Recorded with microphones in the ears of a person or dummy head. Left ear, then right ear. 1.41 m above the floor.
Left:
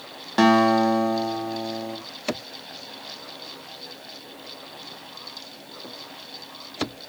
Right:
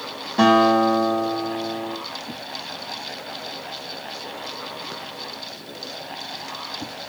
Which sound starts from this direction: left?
A guitar, at 0.4 s.